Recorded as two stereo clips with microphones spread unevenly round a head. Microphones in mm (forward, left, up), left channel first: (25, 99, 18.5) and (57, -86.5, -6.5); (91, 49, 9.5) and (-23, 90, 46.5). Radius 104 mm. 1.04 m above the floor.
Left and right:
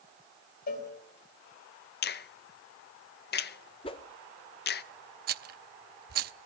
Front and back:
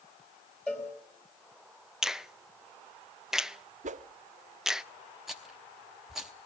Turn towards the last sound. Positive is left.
turn(degrees=-120)